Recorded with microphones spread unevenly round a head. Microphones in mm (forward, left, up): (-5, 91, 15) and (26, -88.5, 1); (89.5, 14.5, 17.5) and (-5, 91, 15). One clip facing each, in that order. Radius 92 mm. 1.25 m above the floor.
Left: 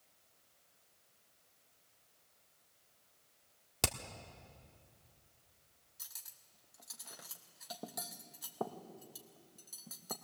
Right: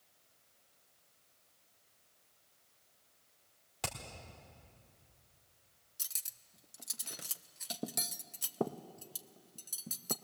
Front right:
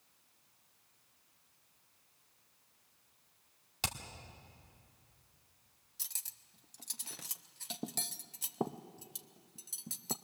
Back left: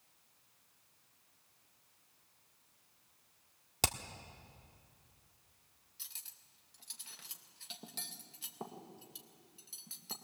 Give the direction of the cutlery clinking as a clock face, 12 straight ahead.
1 o'clock.